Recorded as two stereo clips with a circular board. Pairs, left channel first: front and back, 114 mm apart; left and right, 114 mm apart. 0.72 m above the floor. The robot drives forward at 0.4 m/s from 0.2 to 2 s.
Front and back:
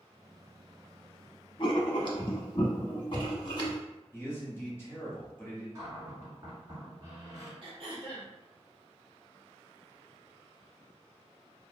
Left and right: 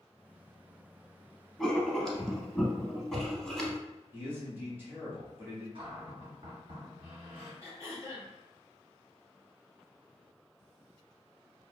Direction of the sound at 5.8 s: 125° right.